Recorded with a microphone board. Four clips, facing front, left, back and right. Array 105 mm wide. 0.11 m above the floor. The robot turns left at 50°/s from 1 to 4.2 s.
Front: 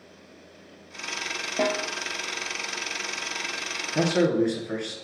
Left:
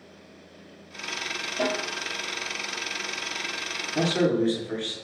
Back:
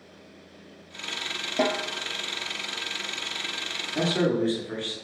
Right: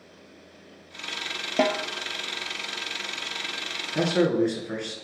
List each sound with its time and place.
1.6 s a snare drum: 95° right, 0.6 m; by 1.8 s 105° right, 0.6 m
3.9 s a man speaking: 35° right, 1.1 m; by 5.0 s 50° right, 1.1 m